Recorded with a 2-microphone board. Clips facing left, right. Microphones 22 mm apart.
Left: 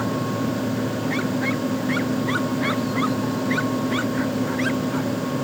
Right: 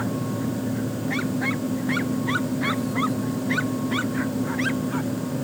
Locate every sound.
Only background noise.